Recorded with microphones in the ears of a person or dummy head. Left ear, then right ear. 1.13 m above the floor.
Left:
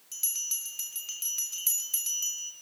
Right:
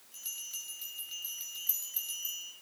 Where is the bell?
80° left, 3.5 m.